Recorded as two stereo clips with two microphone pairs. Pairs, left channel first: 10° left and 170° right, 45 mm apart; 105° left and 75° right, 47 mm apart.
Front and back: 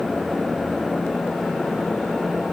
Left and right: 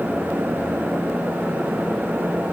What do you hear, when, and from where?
Only background noise.